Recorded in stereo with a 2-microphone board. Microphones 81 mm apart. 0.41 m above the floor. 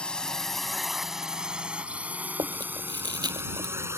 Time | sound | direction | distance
0.0 | a drone | 10° left (ahead or behind) | ?
2.4 | chewing | 60° right (ahead or behind) | ?